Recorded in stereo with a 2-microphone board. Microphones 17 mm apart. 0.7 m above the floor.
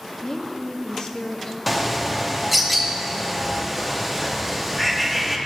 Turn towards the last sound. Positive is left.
turn(degrees=-5)  # may be behind; listen again after turning